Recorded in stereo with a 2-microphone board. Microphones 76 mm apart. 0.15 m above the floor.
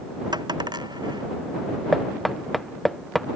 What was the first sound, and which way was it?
A dropped coin, 75° right (ahead or behind).